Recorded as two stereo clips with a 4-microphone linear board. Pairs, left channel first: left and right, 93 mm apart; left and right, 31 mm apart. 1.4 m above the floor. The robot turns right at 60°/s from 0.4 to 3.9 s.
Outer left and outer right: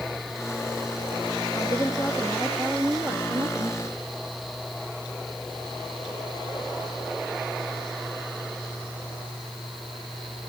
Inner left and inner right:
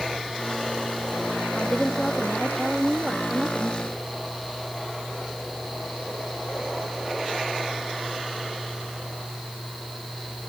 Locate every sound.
1.6 s a woman speaking: 120° left; by 3.8 s 105° right